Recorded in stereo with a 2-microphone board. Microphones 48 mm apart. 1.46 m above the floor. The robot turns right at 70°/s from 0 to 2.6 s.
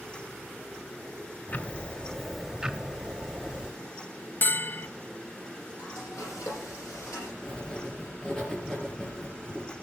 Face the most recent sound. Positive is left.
turn(degrees=15)  # may be behind; listen again after turning